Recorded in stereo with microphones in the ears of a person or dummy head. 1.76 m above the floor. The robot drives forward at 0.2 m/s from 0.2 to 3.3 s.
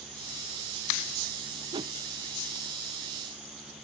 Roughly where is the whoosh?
Right.